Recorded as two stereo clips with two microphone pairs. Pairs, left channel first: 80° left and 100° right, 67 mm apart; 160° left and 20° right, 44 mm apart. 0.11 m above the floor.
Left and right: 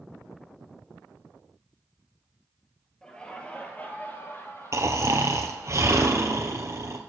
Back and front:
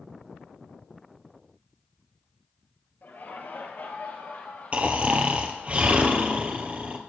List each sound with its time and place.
3.0 s laughter: 155° left, 2.0 m; by 5.7 s 115° left, 3.5 m
4.7 s snoring: 70° right, 1.3 m